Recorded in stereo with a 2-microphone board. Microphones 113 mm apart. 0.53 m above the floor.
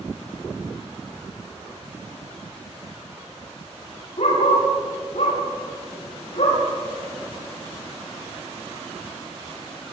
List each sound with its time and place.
4.2 s a dog barking: 75° left (ahead or behind), 8.5 m; by 6.6 s 85° left, 8 m